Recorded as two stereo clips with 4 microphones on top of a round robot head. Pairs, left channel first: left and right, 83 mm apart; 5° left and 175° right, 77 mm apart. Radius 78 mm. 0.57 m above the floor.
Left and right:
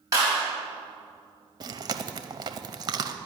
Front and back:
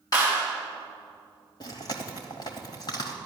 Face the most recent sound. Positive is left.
turn(degrees=-50)